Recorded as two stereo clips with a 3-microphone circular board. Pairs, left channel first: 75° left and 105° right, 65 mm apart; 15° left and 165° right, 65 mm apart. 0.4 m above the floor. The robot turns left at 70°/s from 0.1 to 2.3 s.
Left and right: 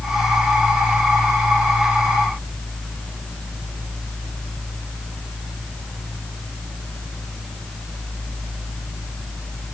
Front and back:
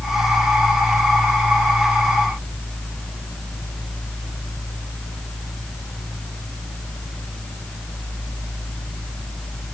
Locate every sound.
Only background noise.